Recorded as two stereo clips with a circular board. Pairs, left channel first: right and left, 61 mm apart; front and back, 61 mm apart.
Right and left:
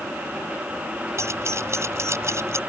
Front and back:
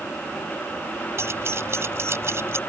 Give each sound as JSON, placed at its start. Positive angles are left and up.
{"t": 1.2, "sound": "keys jangling", "azimuth_deg": 130}